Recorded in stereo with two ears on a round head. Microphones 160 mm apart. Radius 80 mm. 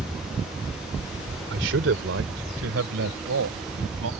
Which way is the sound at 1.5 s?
70° right (ahead or behind).